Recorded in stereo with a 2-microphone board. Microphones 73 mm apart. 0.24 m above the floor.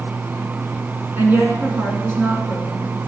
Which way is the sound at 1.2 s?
35° right (ahead or behind).